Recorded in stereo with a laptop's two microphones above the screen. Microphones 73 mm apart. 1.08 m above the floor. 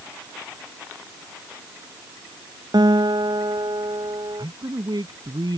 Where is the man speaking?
75° right (ahead or behind).